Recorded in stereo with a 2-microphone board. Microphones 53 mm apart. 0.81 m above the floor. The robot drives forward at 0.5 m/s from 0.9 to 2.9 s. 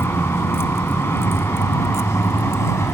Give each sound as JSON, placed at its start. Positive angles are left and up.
{"t": 0.0, "sound": "a vehicle", "side_deg": 55}